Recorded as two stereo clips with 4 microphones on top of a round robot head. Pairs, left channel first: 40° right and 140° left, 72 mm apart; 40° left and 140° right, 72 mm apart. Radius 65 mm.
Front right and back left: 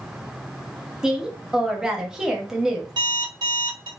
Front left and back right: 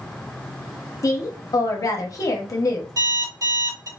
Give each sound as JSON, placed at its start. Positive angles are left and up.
{"t": 1.0, "sound": "a woman speaking", "azimuth_deg": 60, "distance_m": 0.7}
{"t": 3.0, "sound": "an alarm clock", "azimuth_deg": 175, "distance_m": 1.3}